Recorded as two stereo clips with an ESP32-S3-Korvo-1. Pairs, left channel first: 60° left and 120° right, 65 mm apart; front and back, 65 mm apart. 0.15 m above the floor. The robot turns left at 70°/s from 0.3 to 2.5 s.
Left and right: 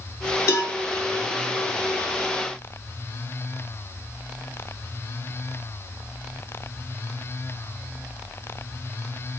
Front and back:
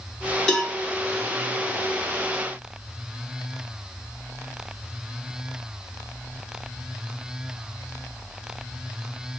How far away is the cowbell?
About 1.0 m.